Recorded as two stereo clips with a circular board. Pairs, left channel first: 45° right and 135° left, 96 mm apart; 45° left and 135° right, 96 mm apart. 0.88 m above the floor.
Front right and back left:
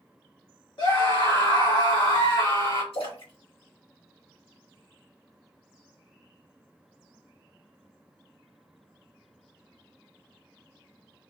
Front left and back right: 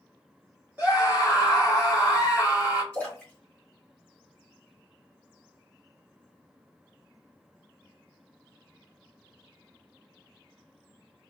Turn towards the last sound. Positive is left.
turn(degrees=-30)